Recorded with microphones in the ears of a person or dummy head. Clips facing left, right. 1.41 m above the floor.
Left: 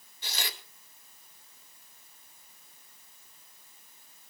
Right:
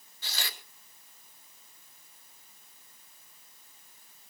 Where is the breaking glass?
No breaking glass in this recording.